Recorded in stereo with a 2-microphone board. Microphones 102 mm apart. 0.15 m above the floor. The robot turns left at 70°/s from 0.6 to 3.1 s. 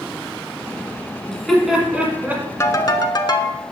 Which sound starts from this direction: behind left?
A ringtone, at 2.6 s.